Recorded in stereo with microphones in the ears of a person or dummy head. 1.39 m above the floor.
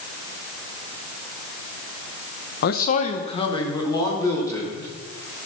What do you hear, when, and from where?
2.6 s a man speaking: 60° left (ahead or behind), 0.9 m; by 4.9 s 15° left (ahead or behind), 4 m